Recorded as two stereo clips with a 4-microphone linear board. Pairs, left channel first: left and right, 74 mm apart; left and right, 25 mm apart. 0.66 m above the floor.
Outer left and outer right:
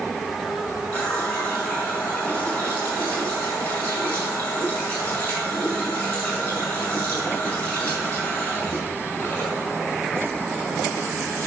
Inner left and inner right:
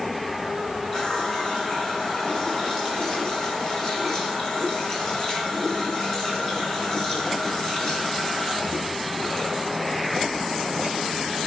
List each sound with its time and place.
0.9 s a running tap: 25° left (ahead or behind), 5 m